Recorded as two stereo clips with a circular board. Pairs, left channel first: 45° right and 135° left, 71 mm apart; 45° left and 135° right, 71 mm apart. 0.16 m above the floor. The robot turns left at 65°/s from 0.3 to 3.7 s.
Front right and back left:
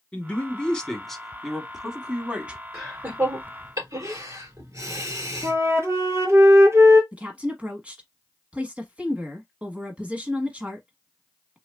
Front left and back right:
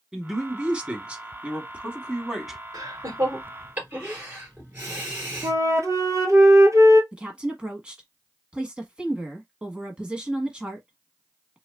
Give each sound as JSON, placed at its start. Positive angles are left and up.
{"t": 0.1, "sound": "a man speaking", "azimuth_deg": -70, "distance_m": 1.0}
{"t": 2.7, "sound": "laughter", "azimuth_deg": -140, "distance_m": 3.0}
{"t": 5.4, "sound": "a flute", "azimuth_deg": -175, "distance_m": 0.9}
{"t": 7.1, "sound": "a woman speaking", "azimuth_deg": 170, "distance_m": 1.2}